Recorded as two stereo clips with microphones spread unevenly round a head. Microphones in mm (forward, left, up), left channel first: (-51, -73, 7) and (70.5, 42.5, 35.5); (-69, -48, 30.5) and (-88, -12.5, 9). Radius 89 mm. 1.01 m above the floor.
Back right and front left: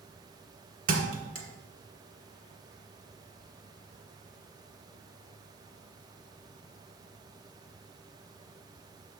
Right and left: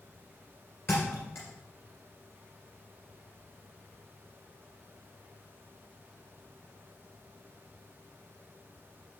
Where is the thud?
5° left, 1.6 m.